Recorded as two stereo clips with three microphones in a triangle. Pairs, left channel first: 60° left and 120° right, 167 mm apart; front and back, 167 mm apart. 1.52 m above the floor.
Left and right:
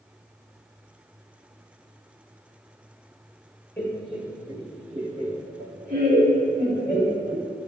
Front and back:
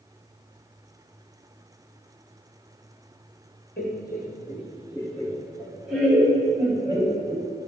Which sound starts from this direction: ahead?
Laughter, at 3.8 s.